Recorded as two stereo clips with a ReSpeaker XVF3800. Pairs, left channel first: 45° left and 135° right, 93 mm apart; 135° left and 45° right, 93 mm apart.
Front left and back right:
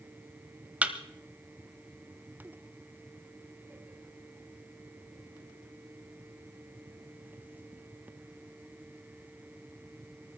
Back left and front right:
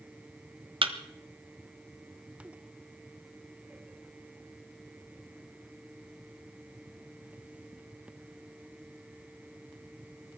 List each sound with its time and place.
0.8 s a thud: 60° right, 1.2 m